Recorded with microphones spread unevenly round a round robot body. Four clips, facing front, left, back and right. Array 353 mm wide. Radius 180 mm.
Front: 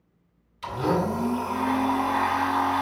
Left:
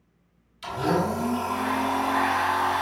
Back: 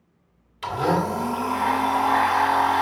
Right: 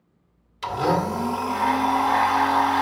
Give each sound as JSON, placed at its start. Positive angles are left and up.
{"t": 0.6, "sound": "a blender", "azimuth_deg": -120, "distance_m": 2.0}